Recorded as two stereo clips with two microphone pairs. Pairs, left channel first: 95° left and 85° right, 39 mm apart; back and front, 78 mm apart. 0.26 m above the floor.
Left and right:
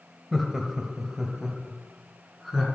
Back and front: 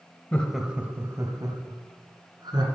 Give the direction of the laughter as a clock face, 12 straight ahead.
5 o'clock.